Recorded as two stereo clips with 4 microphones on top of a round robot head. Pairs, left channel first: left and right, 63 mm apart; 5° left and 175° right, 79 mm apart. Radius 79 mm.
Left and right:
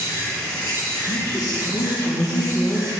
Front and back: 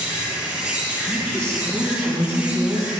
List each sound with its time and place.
0.0 s an insect: 105° left, 3.5 m
1.0 s a woman speaking: 85° left, 3.5 m